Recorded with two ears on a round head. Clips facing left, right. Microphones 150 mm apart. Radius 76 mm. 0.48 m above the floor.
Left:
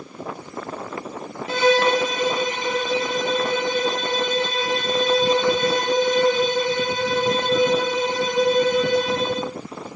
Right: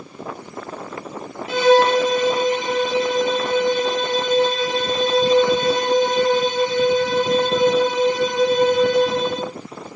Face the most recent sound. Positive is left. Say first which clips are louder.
# right 4 dB
turn(degrees=40)  # may be behind; listen again after turning